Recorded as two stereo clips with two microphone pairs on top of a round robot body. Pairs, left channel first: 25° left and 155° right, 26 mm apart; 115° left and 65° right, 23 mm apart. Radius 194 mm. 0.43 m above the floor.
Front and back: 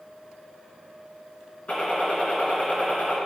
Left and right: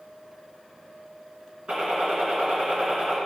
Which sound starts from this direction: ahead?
A gunshot, at 1.7 s.